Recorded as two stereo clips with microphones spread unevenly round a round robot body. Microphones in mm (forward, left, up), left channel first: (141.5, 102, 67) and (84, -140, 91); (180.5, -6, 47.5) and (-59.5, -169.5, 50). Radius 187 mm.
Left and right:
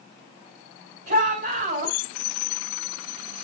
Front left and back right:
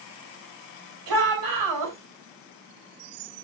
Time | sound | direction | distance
1.1 | a shout | 165° right | 3 m